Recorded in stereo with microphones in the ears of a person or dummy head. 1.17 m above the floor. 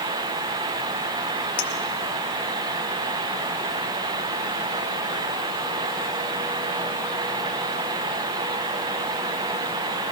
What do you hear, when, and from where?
1.6 s a clink: 35° left (ahead or behind), 1.1 m